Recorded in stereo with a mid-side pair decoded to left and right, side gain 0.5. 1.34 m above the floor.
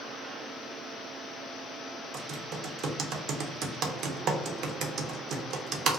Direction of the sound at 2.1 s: 65° right.